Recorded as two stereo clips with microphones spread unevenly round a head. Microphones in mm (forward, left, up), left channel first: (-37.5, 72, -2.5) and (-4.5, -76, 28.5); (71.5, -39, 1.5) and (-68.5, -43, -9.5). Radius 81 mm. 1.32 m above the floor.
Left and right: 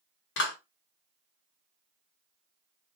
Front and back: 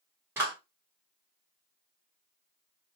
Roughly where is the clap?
Left.